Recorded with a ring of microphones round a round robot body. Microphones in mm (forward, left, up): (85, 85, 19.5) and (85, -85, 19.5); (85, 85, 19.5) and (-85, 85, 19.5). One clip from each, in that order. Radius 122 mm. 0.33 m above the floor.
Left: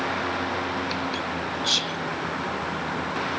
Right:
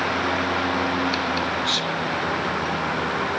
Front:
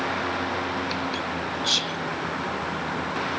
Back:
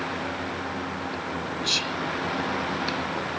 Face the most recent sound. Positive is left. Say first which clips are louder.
# right 1 dB, front 1 dB
turn(degrees=85)